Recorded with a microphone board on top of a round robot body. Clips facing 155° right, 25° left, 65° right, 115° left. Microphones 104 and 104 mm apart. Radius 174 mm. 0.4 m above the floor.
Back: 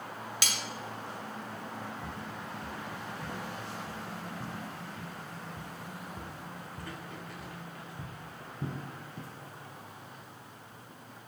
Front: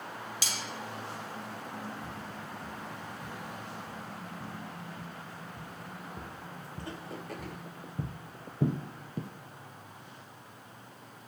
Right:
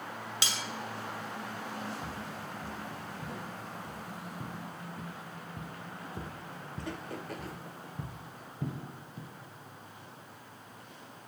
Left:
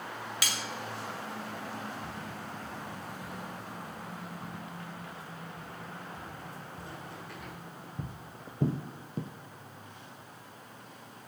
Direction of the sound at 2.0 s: 80° right.